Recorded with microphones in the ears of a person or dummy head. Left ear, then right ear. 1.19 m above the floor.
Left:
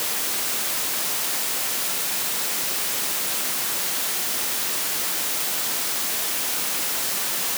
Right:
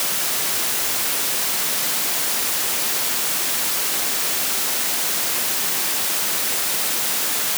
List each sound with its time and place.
Only background noise.